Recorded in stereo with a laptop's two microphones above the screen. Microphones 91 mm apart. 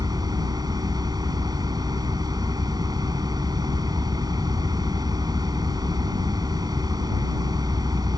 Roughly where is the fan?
Right.